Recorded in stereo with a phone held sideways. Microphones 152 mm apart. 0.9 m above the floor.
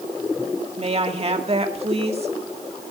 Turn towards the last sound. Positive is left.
turn(degrees=-45)  # may be behind; listen again after turning